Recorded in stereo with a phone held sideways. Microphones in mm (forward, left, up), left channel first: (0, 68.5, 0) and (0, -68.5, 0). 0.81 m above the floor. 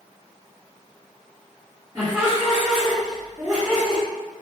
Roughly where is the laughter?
Right.